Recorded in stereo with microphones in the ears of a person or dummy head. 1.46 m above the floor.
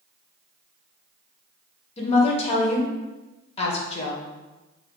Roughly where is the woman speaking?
Left.